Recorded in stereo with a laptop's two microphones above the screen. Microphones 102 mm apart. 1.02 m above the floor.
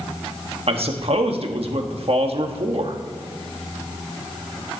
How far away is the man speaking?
About 1.2 m.